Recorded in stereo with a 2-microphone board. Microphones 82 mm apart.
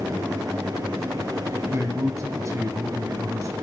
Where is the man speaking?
40° right (ahead or behind), 2.0 m.